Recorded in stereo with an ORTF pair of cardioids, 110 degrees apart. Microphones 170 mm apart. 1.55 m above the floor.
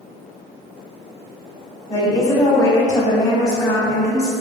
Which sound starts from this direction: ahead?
A woman speaking, at 1.9 s.